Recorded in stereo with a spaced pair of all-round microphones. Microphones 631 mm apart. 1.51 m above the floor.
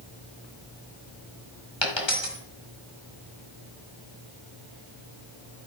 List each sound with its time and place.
1.8 s a dropped coin: 45° left (ahead or behind), 1.8 m